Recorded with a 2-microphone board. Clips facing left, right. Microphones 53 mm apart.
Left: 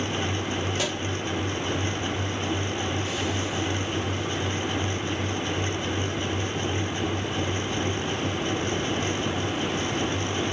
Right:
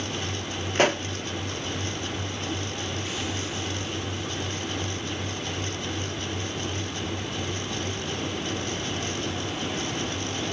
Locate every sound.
0.8 s a pop: 50° right (ahead or behind), 0.5 m